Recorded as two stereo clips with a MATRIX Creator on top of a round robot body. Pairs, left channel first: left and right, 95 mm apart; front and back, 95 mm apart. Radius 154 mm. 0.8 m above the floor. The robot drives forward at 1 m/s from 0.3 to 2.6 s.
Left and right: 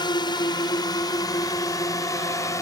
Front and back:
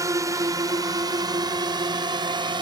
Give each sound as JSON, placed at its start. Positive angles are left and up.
{"t": 0.0, "sound": "a drone", "azimuth_deg": 130}